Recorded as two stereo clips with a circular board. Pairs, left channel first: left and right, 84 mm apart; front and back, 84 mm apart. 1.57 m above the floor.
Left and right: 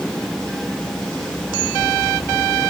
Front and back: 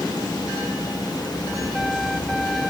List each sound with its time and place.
Only background noise.